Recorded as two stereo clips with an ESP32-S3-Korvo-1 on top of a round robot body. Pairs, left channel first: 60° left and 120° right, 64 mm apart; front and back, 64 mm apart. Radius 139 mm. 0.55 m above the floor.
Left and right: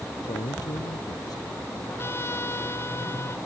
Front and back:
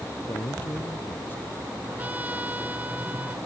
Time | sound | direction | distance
0.2 | a man speaking | 55° left | ?
1.9 | a trumpet | 110° left | ?